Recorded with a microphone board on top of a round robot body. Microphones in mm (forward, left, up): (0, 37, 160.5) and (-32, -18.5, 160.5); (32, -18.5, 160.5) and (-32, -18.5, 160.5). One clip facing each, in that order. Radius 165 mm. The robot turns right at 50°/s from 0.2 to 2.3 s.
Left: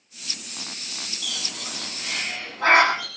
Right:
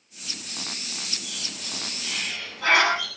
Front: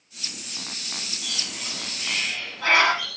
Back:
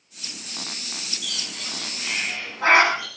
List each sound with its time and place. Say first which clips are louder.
1.2 s a bird: left 3 dB, even; 60° left, 8.5 m; by 3.1 s 115° left, 8.5 m